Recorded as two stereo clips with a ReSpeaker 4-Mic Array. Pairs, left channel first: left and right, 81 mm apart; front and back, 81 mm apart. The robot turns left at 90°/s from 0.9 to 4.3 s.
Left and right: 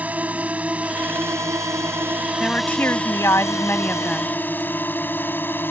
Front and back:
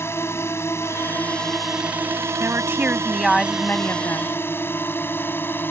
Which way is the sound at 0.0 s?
30° right.